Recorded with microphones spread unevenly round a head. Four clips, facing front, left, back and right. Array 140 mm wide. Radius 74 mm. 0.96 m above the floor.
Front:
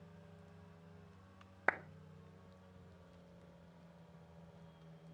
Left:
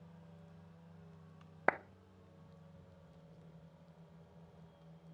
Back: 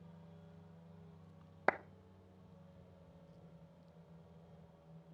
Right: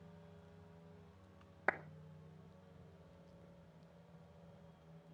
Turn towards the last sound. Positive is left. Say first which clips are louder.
# left 5 dB, back 2 dB
turn(degrees=120)